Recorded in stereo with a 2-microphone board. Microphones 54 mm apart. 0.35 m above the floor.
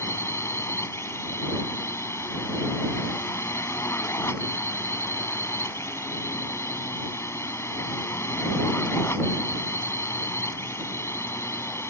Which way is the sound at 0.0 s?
55° left (ahead or behind).